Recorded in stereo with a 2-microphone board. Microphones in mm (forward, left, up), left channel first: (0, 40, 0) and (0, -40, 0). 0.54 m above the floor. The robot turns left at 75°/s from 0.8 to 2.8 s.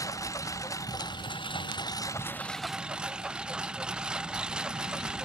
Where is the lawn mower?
40° left (ahead or behind); by 5.2 s 10° right (ahead or behind).